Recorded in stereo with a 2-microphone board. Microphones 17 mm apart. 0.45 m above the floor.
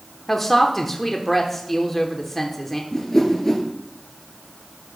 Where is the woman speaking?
15° left (ahead or behind), 1.0 m.